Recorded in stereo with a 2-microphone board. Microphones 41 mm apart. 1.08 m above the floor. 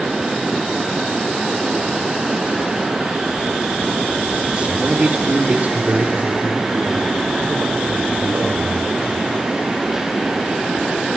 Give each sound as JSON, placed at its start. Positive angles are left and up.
{"t": 4.6, "sound": "a man speaking", "side_deg": -25, "distance_m": 2.0}